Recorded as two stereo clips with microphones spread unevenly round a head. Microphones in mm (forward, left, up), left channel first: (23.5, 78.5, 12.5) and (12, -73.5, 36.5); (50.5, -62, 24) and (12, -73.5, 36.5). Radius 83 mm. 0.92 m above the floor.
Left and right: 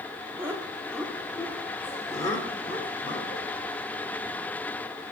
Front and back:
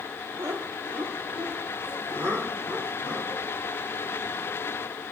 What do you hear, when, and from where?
0.4 s laughter: 175° right, 1.9 m; by 3.4 s 145° left, 3.5 m